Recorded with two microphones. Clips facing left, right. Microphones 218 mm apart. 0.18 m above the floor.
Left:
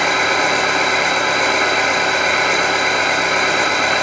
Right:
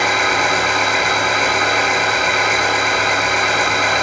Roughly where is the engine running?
Left.